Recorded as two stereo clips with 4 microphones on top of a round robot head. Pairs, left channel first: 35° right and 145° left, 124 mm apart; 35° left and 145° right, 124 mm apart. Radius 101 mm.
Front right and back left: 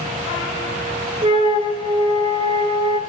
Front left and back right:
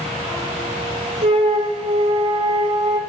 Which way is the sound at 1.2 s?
175° right.